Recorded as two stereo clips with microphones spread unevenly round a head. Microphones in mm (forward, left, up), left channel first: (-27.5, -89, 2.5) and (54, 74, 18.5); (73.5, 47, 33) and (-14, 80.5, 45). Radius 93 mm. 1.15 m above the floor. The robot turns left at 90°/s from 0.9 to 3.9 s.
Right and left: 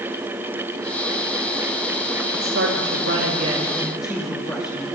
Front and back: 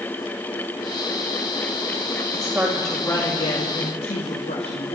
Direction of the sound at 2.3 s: 115° left.